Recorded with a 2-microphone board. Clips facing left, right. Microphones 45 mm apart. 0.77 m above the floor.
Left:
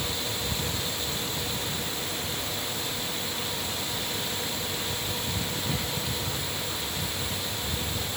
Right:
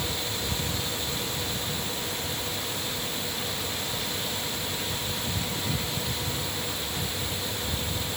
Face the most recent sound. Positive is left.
No sound to turn to.